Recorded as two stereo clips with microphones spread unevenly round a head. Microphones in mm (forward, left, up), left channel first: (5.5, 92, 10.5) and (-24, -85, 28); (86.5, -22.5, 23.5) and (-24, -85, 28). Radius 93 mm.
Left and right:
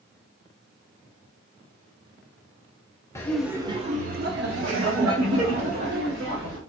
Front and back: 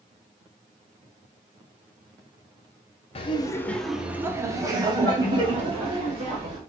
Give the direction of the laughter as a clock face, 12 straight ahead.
12 o'clock.